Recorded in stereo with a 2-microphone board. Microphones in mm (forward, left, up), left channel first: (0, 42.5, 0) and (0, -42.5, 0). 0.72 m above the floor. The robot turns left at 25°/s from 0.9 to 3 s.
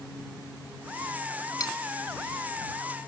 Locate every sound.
1.6 s cutlery clinking: 45° left (ahead or behind); by 1.8 s 50° left (ahead or behind)